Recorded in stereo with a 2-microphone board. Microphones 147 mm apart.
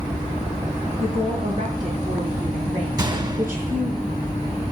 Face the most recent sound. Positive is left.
turn(degrees=-30)  # may be behind; listen again after turning